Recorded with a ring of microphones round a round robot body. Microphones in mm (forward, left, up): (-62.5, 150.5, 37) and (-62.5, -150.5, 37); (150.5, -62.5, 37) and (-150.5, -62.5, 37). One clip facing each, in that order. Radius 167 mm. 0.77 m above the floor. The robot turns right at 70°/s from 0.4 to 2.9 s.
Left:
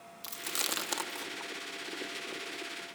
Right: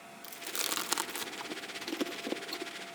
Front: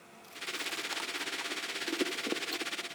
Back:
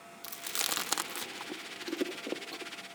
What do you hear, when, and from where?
0.2 s chewing: 160° left, 0.9 m; by 2.7 s 35° right, 0.9 m